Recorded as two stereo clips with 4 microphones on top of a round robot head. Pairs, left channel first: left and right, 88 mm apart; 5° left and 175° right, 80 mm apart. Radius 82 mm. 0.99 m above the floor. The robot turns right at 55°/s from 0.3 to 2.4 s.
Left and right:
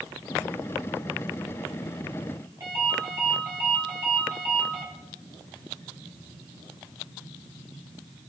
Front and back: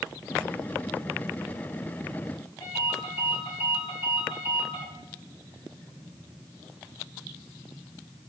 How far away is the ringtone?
About 4.5 m.